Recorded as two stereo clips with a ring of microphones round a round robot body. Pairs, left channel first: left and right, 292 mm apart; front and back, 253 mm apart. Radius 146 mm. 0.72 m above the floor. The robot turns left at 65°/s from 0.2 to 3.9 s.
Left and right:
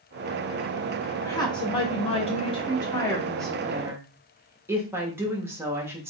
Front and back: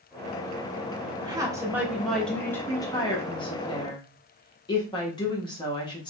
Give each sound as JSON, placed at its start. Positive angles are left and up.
{"t": 1.2, "sound": "a woman speaking", "azimuth_deg": 150, "distance_m": 0.7}